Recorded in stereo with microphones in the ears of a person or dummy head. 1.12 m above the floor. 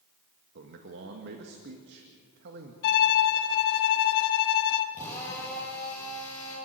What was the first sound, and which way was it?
A man speaking, 60° right (ahead or behind).